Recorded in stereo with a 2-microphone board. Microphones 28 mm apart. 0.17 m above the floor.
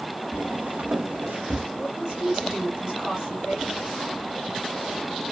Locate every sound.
0.3 s footsteps: 60° right (ahead or behind), 0.9 m; by 1.7 s 80° right, 1.2 m
1.8 s a woman speaking: 30° right (ahead or behind), 3 m